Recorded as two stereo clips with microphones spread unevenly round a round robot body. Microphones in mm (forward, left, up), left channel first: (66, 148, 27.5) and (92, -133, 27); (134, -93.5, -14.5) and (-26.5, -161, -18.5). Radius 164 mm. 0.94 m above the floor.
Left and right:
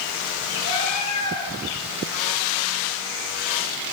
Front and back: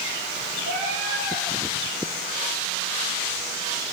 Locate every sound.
0.6 s a cat meowing: 140° left, 6.5 m